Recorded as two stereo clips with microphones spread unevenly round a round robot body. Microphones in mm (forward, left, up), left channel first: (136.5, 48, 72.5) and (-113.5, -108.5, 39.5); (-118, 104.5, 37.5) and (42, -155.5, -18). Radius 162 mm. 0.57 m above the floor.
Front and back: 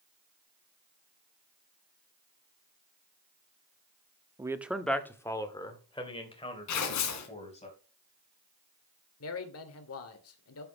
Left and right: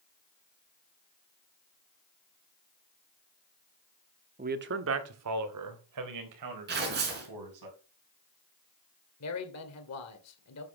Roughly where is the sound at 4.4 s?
Right.